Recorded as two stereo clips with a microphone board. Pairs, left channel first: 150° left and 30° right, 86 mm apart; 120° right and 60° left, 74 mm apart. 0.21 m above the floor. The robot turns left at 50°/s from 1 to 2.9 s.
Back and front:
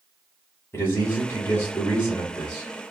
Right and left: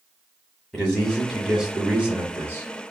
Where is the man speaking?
165° left, 1.1 m; by 2.6 s 80° left, 1.1 m.